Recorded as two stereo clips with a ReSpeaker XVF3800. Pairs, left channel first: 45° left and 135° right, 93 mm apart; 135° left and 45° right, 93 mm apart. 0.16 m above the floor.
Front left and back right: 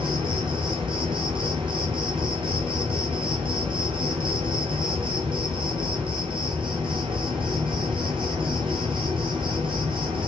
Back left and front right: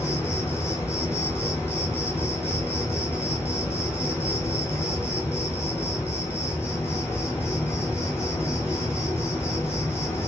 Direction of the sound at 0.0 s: 160° right.